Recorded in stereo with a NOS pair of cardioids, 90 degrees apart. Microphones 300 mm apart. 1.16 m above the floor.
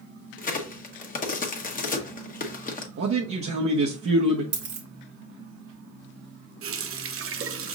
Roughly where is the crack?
Ahead left.